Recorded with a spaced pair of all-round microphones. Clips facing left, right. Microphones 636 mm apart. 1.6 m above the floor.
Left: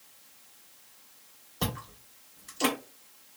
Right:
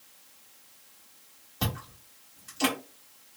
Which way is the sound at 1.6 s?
35° right (ahead or behind).